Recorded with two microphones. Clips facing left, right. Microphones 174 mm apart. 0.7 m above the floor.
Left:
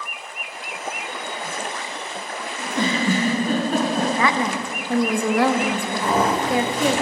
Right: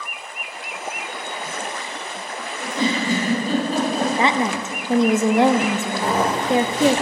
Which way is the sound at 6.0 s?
40° right (ahead or behind).